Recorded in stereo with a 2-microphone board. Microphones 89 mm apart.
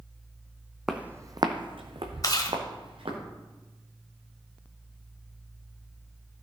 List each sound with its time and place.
0.9 s footsteps: 5° right (ahead or behind), 0.9 m; by 3.2 s 75° right (ahead or behind), 2.5 m
2.2 s chewing: 45° left (ahead or behind), 1.0 m